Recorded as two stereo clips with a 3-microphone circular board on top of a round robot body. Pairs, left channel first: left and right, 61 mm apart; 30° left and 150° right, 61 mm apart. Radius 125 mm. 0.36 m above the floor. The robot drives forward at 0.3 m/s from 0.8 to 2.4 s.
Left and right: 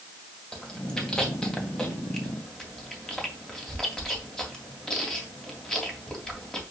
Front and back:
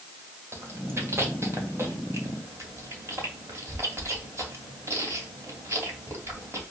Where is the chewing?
165° left, 2.5 m; by 6.6 s 170° left, 3 m.